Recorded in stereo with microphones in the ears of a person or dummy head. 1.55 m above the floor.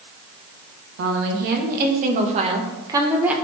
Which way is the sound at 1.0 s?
60° right (ahead or behind).